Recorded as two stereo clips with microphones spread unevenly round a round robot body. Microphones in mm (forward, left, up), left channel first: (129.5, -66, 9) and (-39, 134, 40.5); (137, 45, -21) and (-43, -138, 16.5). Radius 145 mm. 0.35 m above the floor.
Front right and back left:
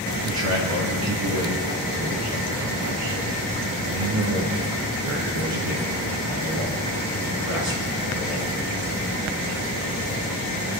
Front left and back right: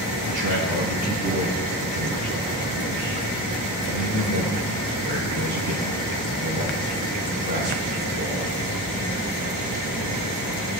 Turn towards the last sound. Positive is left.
turn(degrees=170)